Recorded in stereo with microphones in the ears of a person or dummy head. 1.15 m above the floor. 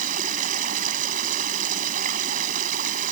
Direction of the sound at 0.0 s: 50° right (ahead or behind).